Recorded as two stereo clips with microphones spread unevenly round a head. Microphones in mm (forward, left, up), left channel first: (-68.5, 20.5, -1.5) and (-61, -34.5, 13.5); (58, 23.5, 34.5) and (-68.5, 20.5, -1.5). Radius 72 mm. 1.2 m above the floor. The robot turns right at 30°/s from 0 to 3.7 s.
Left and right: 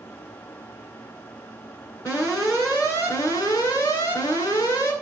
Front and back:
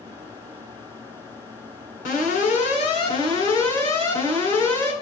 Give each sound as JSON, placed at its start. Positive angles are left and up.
{"t": 2.0, "sound": "an alarm", "azimuth_deg": 20, "distance_m": 9.5}